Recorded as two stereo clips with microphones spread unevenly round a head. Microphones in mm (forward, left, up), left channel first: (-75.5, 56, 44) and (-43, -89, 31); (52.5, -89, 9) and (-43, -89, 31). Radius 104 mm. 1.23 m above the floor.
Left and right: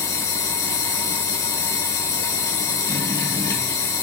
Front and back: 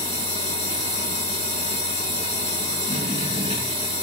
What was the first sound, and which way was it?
A machine running, 170° left.